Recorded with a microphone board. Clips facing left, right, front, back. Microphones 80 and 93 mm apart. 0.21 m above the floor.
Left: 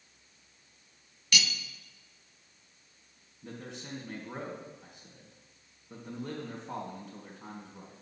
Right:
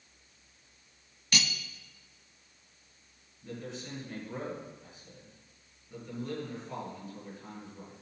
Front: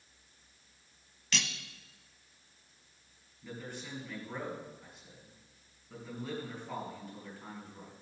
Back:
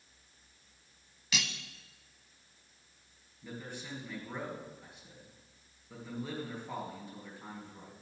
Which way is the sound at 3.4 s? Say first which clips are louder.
Right 2 dB, even; 110° left.